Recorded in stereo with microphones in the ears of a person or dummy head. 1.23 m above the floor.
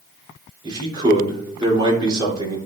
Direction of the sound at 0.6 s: 25° right (ahead or behind).